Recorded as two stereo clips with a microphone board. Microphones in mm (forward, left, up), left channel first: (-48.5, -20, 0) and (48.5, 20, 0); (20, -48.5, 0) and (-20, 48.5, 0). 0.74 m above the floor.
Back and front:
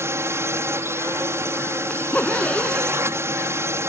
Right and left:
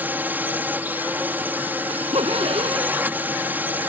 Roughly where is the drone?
Ahead left.